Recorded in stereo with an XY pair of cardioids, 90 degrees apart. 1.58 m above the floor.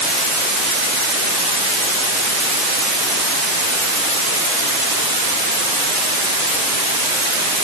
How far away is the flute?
I don't hear a flute.